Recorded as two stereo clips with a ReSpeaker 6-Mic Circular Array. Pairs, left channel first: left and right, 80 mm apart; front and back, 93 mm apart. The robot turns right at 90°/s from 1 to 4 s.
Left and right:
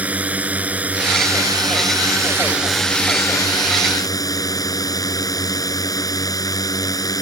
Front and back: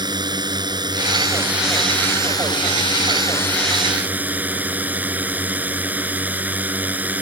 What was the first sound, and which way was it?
A drone, 160° right.